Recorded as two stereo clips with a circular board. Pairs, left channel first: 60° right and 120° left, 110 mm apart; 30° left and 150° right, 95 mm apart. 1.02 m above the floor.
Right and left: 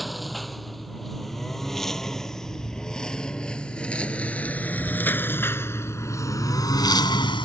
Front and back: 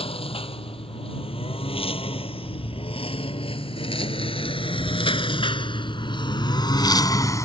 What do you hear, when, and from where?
0.0 s a lawn mower: 30° left; by 7.5 s 25° right